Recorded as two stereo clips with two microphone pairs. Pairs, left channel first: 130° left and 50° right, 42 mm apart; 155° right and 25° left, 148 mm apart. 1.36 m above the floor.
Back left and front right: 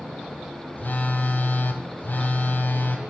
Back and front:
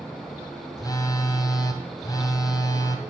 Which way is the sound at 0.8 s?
150° left.